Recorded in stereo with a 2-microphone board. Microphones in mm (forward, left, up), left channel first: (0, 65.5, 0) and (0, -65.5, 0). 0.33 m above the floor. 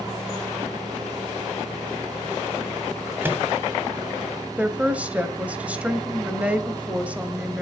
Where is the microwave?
15° right (ahead or behind), 1.9 m.